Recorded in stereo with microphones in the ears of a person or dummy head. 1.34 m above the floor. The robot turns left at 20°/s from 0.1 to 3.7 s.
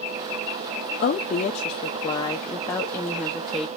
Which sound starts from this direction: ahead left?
A woman speaking, at 1.0 s.